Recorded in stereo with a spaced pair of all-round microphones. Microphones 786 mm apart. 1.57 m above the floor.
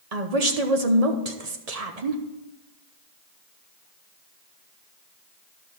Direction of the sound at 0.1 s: 55° right (ahead or behind).